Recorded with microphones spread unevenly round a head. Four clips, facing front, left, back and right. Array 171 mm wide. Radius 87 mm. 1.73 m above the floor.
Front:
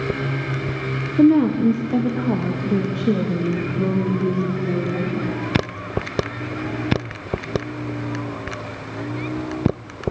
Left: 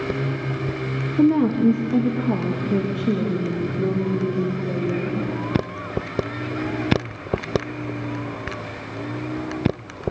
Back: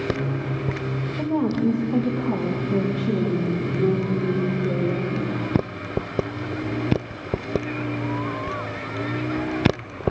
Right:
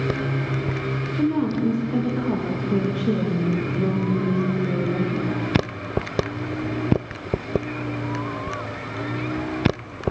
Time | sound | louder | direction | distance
1.2 | a woman speaking | left 5 dB, front 9 dB | 25° left | 1.5 m